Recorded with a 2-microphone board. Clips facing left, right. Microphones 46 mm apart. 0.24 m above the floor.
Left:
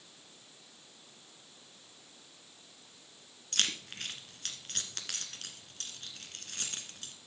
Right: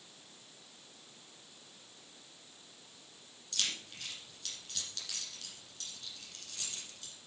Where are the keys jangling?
55° left (ahead or behind), 1.8 m.